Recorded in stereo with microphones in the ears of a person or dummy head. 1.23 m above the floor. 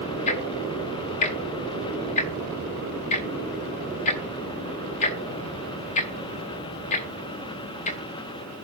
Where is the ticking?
40° left (ahead or behind), 1.4 m.